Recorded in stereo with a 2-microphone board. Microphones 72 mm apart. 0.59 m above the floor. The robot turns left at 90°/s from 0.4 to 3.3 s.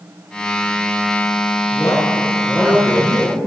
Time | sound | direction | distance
1.7 | a man speaking | 65° left | 9.5 m